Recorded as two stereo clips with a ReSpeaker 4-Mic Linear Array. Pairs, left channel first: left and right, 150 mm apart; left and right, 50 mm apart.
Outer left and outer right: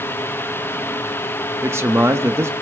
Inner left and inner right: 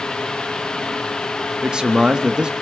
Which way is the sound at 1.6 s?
15° right (ahead or behind).